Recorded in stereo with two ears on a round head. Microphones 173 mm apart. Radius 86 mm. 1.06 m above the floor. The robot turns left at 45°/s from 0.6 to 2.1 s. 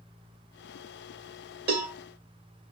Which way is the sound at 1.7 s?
55° right (ahead or behind).